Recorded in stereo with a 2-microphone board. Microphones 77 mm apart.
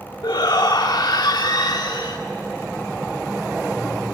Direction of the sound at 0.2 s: 75° left (ahead or behind).